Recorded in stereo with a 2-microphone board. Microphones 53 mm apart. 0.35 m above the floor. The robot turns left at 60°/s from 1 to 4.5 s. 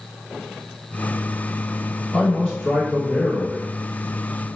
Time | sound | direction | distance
2.1 | a man speaking | 10° left (ahead or behind) | 1.1 m